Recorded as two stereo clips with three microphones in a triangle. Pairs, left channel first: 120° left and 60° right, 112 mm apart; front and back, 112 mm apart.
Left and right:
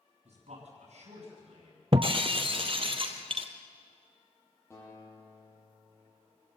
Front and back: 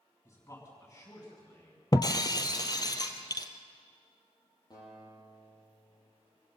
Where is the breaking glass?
45° right, 1.6 m.